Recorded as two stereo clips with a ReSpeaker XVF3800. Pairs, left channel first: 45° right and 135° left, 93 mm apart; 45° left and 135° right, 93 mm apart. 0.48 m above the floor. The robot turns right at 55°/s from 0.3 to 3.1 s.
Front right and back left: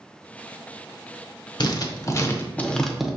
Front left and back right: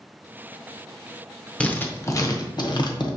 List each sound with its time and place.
1.6 s writing: 30° right, 0.6 m; by 3.1 s 50° left, 0.6 m